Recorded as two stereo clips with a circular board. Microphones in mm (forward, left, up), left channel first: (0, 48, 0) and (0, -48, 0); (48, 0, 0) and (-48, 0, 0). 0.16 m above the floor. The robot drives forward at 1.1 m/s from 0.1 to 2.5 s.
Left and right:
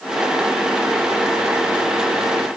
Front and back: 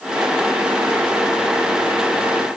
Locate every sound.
Only background noise.